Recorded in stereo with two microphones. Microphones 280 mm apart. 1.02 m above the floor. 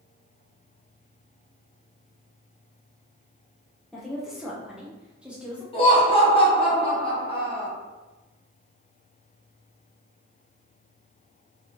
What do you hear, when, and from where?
3.9 s a woman speaking: centre (ahead or behind), 0.7 m; by 5.6 s 5° right (ahead or behind), 1.0 m
5.7 s laughter: 20° left (ahead or behind), 1.1 m